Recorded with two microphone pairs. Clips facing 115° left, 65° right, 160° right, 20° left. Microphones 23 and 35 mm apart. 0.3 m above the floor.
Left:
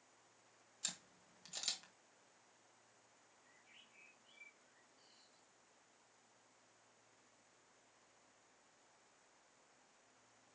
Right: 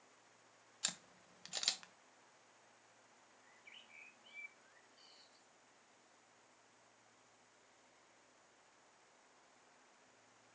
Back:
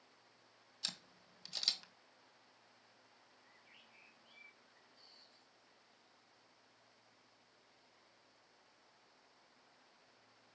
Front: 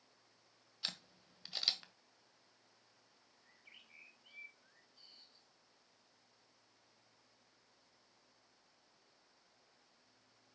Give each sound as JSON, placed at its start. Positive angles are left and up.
{"t": 0.8, "sound": "a camera shutter", "azimuth_deg": -30, "distance_m": 1.4}
{"t": 3.4, "sound": "a bird", "azimuth_deg": -30, "distance_m": 3.5}